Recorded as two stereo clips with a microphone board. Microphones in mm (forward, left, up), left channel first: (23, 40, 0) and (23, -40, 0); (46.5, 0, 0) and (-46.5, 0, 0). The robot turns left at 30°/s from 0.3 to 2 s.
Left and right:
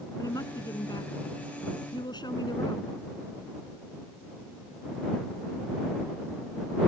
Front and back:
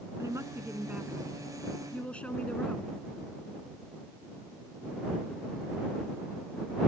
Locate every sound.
0.2 s a woman speaking: 125° left; by 2.9 s 75° left